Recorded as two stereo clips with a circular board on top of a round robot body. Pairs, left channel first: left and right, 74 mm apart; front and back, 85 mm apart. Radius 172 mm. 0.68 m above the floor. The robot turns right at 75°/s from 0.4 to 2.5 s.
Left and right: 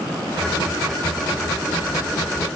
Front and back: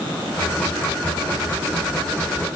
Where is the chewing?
I don't hear chewing.